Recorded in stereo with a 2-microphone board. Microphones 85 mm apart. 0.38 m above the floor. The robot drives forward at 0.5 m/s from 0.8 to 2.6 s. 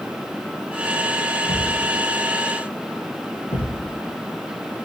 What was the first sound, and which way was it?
A thud, 75° left (ahead or behind).